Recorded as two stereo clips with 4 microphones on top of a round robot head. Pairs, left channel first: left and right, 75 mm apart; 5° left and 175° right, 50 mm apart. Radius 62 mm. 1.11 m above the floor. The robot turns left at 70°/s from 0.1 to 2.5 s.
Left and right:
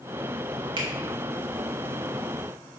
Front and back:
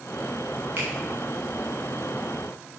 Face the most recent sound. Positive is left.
turn(degrees=125)